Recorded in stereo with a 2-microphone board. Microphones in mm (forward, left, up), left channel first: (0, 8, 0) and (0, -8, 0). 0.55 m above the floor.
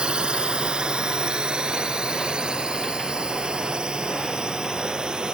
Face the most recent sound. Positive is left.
turn(degrees=-60)  # may be behind; listen again after turning